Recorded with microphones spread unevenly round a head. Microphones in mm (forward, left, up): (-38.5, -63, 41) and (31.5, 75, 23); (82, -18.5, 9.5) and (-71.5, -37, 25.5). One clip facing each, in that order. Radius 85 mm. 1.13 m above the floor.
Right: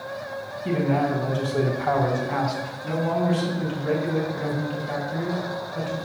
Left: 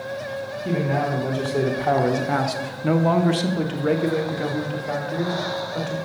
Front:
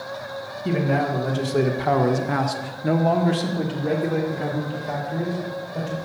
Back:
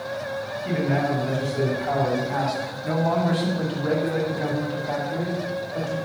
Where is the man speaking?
25° right, 1.5 m; by 6.0 s 105° left, 2.5 m.